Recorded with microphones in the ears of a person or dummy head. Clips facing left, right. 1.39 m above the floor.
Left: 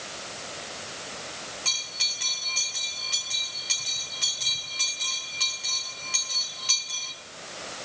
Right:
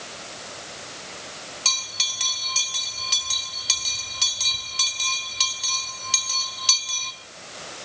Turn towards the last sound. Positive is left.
turn(degrees=-65)  # may be behind; listen again after turning